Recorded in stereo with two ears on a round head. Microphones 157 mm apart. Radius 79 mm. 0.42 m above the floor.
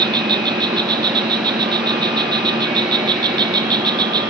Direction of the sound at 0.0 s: 25° right (ahead or behind).